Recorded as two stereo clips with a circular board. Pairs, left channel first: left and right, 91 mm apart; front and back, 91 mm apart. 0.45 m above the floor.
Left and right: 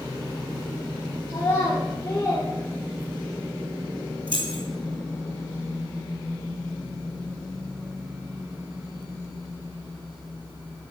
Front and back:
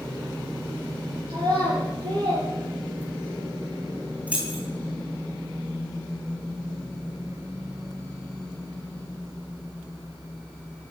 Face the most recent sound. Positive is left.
turn(degrees=-105)